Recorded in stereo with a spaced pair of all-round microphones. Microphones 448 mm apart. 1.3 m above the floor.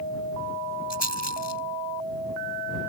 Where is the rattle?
65° left (ahead or behind).